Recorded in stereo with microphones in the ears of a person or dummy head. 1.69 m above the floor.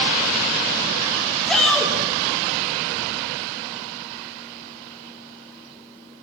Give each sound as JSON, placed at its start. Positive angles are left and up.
{"t": 1.5, "sound": "a shout", "side_deg": 0, "distance_m": 3.5}